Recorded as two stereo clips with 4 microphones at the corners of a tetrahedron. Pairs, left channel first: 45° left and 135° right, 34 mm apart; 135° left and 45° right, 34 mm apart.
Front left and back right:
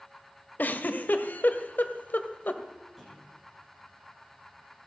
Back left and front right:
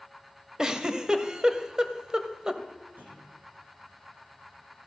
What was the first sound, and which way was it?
A giggle, 25° left.